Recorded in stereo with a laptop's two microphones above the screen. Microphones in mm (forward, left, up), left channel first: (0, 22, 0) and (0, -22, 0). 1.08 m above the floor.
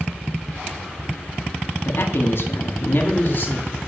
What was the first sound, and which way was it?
A man speaking, 65° left (ahead or behind).